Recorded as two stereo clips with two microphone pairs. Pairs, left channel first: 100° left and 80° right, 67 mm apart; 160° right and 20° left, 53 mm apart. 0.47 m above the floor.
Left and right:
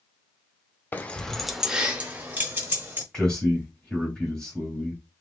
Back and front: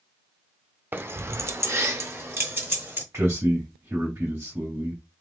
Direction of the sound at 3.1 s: 20° left.